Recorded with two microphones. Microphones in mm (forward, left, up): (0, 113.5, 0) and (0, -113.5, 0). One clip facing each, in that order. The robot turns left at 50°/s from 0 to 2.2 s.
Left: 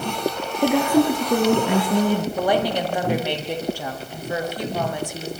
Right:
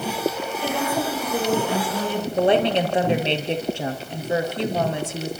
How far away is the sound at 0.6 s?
About 6 m.